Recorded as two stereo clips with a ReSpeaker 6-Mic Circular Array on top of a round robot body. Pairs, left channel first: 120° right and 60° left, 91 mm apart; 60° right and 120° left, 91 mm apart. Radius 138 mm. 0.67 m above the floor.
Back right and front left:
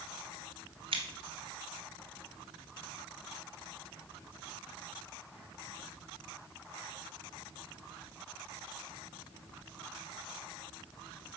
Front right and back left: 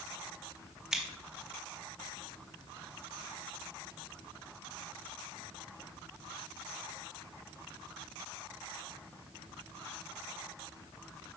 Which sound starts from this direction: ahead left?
Scissors, at 0.9 s.